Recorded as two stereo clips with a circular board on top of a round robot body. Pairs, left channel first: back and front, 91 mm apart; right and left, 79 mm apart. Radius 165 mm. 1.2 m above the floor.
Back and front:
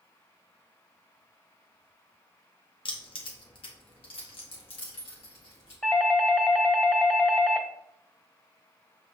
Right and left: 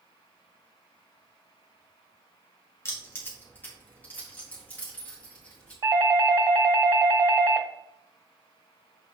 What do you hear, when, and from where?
2.9 s keys jangling: 145° right, 1.1 m; by 5.7 s 165° right, 2.5 m
5.8 s a doorbell: 100° left, 1.3 m